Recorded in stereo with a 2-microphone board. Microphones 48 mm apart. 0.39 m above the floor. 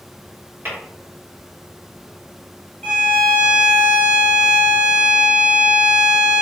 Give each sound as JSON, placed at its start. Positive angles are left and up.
{"t": 0.7, "sound": "tapping", "side_deg": -45, "distance_m": 1.8}
{"t": 2.8, "sound": "a violin", "side_deg": 15, "distance_m": 1.3}